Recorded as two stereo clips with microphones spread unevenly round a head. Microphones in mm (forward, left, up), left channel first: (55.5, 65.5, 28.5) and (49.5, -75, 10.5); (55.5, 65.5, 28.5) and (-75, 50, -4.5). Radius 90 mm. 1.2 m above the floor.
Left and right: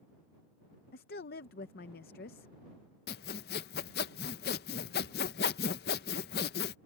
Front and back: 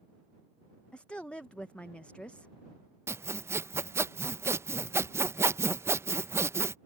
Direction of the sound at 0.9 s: 90° left.